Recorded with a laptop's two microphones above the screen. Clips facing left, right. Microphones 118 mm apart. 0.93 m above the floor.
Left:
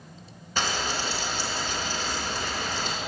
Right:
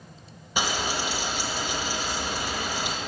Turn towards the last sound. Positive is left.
turn(degrees=-10)  # may be behind; listen again after turning